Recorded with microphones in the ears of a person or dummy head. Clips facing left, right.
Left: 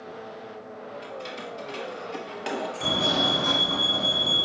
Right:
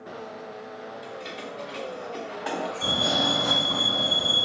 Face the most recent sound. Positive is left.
turn(degrees=30)  # may be behind; listen again after turning